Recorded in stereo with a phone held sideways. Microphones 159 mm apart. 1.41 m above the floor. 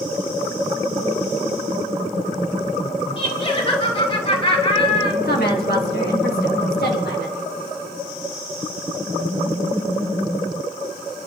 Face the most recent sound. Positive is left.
turn(degrees=85)